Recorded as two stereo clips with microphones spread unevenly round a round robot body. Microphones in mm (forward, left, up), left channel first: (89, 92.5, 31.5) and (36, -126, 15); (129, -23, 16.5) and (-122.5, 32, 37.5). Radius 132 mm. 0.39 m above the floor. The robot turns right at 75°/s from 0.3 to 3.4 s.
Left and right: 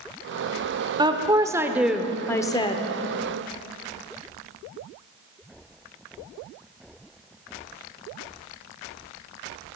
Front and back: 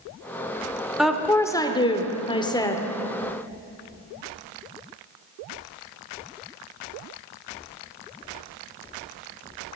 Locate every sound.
1.0 s a woman speaking: 100° right, 0.9 m; by 2.9 s 45° left, 0.9 m